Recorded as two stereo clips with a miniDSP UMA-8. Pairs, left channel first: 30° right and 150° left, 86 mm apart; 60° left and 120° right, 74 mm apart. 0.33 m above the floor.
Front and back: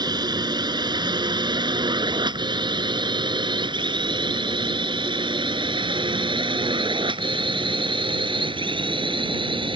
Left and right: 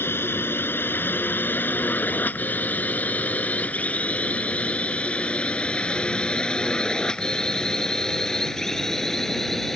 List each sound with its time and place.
0.0 s a drone: 120° left; by 9.8 s 145° left